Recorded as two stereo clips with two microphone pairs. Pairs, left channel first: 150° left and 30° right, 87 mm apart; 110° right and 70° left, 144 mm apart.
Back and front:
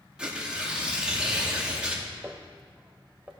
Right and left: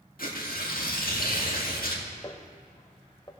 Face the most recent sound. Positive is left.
turn(degrees=-85)